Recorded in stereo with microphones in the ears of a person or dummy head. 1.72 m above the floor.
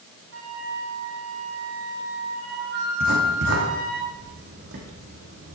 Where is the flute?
75° right (ahead or behind), 5.5 m.